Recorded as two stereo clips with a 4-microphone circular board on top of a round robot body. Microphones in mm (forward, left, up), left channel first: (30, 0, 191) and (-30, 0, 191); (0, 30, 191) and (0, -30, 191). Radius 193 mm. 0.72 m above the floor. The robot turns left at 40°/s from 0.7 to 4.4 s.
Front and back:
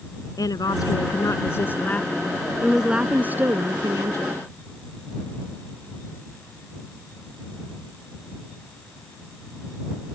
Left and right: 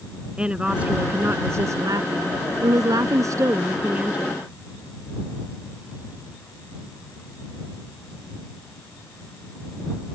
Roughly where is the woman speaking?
Ahead.